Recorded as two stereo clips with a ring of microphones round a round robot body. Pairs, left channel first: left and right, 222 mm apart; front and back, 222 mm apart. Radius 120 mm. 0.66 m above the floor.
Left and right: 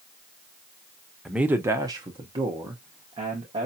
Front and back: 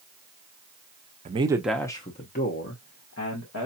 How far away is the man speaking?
About 0.6 m.